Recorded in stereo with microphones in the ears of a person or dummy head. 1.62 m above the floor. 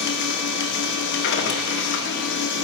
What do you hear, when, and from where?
0.0 s a machine running: 65° left (ahead or behind), 1.1 m